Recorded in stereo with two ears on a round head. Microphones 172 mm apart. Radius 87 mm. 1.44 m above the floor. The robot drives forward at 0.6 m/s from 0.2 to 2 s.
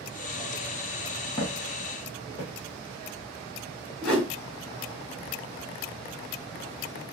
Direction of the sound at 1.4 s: 10° left (ahead or behind).